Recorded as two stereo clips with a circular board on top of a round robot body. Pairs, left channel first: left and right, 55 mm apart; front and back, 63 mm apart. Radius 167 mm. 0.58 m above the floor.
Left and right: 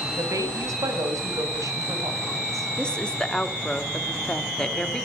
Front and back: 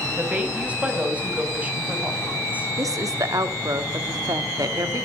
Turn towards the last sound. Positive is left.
turn(degrees=160)